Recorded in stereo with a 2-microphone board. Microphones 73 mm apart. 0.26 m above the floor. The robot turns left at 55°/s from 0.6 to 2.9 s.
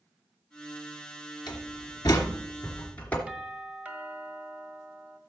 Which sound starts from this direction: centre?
A doorbell, at 3.3 s.